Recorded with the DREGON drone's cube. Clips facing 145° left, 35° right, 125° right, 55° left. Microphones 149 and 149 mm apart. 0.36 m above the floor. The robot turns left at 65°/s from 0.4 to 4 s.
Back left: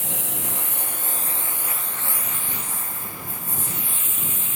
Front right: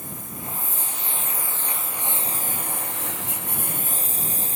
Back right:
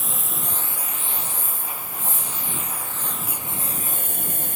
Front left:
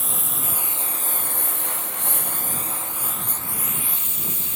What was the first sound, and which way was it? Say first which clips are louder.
A lawn mower: back left 3 dB, even; 145° left.